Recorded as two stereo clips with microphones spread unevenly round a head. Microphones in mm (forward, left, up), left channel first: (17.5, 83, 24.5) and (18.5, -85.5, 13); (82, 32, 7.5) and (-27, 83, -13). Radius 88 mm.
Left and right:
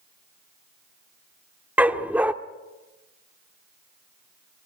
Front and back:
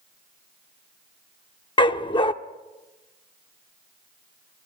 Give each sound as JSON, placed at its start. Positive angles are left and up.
{"t": 1.8, "sound": "a dog barking", "azimuth_deg": -5, "distance_m": 1.0}